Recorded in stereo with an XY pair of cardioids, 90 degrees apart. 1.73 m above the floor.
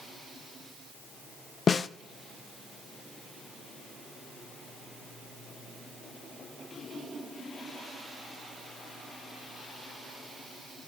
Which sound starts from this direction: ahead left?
A snare drum, at 1.7 s.